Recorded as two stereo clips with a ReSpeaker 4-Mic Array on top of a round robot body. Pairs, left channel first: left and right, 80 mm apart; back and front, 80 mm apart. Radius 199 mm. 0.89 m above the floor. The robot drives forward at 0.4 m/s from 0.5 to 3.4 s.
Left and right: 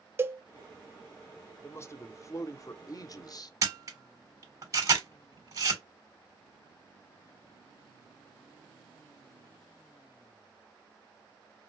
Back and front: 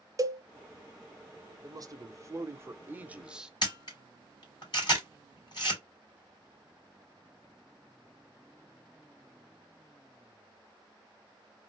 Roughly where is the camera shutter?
Behind right.